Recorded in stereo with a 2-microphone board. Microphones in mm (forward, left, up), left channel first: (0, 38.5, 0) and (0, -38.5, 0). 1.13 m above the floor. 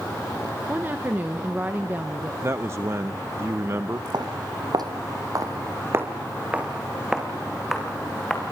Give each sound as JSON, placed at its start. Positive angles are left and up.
{"t": 0.7, "sound": "a woman speaking", "side_deg": -25, "distance_m": 1.1}
{"t": 2.4, "sound": "a man speaking", "side_deg": -35, "distance_m": 0.6}
{"t": 4.1, "sound": "footsteps", "side_deg": -65, "distance_m": 3.0}